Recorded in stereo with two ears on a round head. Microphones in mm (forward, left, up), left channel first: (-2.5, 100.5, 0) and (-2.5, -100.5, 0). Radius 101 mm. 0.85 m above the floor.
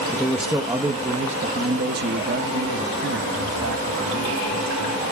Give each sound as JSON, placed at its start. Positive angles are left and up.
{"t": 0.1, "sound": "a man speaking", "side_deg": 5, "distance_m": 1.1}